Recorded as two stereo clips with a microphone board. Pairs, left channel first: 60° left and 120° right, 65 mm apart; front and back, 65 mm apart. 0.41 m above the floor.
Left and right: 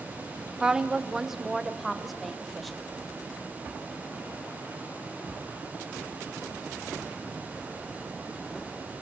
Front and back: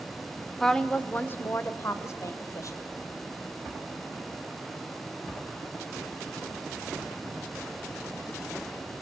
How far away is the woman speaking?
About 0.8 m.